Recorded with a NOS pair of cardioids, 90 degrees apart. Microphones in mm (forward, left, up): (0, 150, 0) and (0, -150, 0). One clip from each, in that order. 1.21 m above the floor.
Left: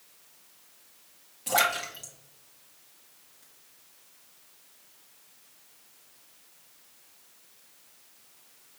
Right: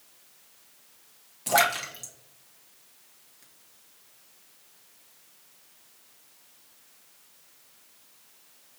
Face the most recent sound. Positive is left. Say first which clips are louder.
# right 2 dB
turn(degrees=-25)